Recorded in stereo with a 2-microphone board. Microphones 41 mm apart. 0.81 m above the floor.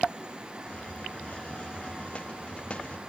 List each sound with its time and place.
0.7 s a hiss: 30° left (ahead or behind), 0.7 m